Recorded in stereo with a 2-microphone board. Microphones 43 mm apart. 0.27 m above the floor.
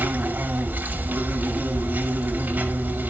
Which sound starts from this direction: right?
An insect, at 0.0 s.